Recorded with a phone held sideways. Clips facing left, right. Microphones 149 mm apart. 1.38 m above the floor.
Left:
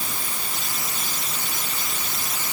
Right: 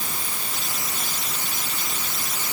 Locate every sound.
Only background noise.